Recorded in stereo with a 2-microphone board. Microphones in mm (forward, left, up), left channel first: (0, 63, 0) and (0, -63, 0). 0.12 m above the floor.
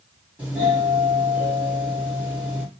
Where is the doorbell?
10° right (ahead or behind), 3 m.